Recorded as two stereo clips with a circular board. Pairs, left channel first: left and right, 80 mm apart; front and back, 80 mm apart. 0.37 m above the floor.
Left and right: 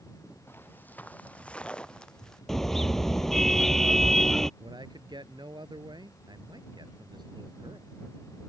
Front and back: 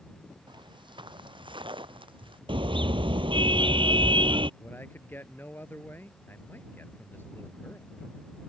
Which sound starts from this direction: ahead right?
A man speaking, at 4.6 s.